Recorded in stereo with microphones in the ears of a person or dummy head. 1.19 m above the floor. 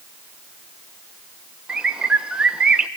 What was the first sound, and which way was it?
A bird, 10° right (ahead or behind).